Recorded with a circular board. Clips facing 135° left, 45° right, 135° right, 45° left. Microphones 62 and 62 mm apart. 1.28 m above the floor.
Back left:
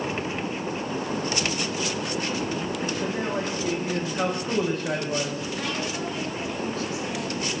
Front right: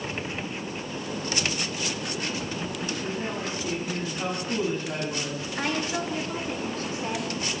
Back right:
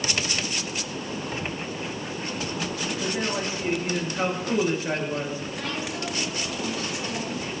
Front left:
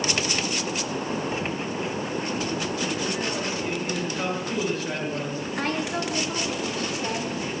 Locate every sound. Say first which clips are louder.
3.0 s a man speaking: back left 4 dB, even; 155° left, 9 m
5.5 s a woman speaking: front right 5 dB, front left 4 dB; 10° left, 6 m